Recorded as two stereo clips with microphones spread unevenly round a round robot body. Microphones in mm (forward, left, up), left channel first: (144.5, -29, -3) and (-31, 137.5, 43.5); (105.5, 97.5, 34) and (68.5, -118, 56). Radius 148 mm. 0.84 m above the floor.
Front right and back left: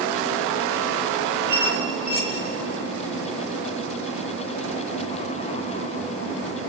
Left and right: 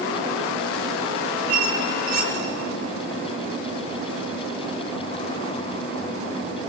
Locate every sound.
1.5 s a squeak: 160° right, 2 m